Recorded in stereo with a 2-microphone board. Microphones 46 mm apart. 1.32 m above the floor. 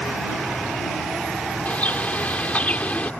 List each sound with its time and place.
1.6 s a bird: 35° left (ahead or behind)